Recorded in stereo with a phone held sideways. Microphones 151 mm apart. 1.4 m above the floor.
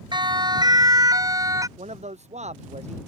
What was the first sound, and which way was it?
A siren, 30° right (ahead or behind).